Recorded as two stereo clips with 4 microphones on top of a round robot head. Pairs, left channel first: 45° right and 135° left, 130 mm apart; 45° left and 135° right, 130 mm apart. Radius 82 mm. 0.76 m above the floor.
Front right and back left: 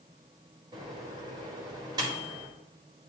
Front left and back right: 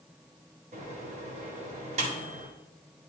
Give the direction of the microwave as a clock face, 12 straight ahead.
6 o'clock.